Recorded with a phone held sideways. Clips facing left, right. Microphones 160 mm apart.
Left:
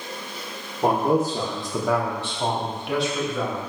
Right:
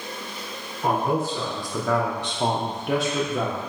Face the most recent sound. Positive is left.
turn(degrees=-60)  # may be behind; listen again after turning